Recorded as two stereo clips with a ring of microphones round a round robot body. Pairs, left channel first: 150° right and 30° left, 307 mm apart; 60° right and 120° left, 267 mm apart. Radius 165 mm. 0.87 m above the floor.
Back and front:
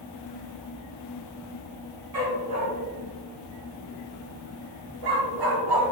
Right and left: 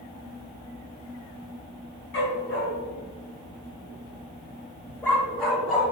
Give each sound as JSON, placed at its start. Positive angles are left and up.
{"t": 2.1, "sound": "a dog barking", "azimuth_deg": -15, "distance_m": 2.5}